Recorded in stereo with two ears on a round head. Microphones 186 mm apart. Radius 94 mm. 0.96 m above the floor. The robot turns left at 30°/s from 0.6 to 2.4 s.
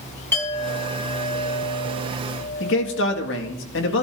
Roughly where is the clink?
Behind.